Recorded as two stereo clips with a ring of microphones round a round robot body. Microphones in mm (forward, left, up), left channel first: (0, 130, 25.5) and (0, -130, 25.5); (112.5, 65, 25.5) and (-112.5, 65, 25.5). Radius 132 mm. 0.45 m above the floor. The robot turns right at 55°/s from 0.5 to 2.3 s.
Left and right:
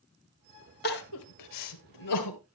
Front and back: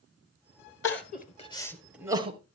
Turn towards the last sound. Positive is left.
turn(degrees=115)